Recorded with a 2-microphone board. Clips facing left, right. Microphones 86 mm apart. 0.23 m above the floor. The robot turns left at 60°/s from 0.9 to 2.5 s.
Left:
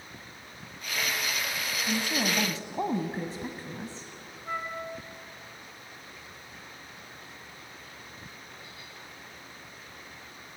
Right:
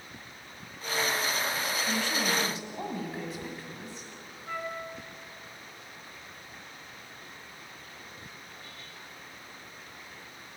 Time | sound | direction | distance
1.9 | a woman speaking | 170° left | 1.4 m
4.5 | a flute | 15° left (ahead or behind) | 2.0 m